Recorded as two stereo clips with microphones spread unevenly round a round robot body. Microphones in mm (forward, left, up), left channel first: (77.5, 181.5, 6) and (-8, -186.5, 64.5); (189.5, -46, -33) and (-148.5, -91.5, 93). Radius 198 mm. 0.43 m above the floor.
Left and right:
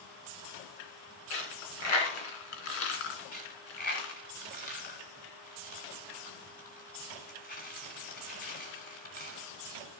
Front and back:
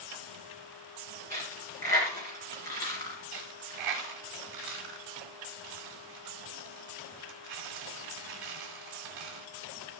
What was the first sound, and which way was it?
A dropped coin, 90° left.